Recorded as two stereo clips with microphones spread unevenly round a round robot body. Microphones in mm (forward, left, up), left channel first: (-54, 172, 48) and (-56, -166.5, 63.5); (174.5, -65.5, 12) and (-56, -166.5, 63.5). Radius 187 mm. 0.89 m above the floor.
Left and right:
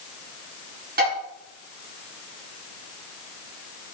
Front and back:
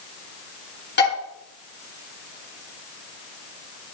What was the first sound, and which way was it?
Dishes clattering, 25° right.